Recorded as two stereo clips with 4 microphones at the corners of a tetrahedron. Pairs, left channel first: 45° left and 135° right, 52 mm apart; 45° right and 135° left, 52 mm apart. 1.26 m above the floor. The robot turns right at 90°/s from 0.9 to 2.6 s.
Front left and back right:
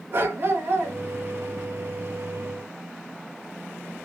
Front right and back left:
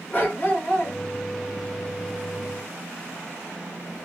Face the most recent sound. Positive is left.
turn(degrees=55)